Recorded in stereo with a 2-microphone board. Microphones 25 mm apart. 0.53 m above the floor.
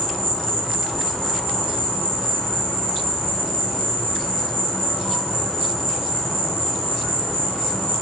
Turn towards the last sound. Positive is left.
turn(degrees=25)  # may be behind; listen again after turning